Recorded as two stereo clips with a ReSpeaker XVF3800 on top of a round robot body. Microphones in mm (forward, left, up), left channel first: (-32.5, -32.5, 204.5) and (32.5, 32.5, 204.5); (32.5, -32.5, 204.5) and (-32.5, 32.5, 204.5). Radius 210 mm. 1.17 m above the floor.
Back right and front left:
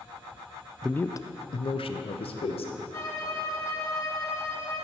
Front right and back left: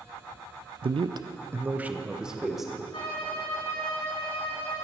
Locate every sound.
0.8 s a man speaking: 140° left, 0.6 m; by 2.8 s 135° right, 1.7 m
2.9 s a violin: 80° right, 4 m